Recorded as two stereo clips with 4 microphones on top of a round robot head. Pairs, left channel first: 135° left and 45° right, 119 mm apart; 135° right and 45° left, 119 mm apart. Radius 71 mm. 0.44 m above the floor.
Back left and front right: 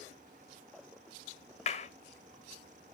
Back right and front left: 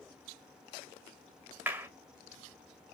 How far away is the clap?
About 1.7 m.